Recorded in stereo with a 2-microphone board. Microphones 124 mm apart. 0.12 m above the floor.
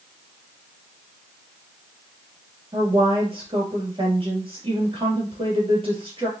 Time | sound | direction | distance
2.7 | a woman speaking | 45° right (ahead or behind) | 3 m